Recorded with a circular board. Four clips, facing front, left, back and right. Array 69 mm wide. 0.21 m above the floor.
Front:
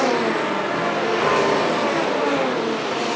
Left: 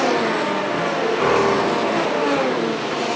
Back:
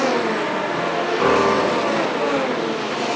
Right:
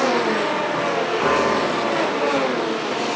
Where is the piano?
155° left, 6 m.